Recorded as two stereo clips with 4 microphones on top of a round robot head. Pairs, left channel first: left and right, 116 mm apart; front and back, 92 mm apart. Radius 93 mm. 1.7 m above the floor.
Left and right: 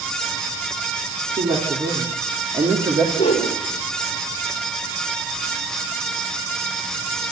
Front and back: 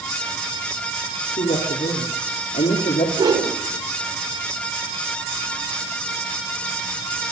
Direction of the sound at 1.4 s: 30° right.